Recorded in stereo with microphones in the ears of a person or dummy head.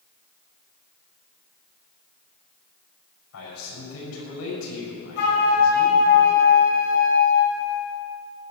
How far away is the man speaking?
About 6.5 m.